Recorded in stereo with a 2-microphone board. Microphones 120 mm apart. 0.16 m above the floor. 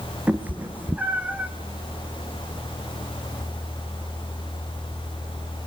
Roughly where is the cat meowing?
Centre.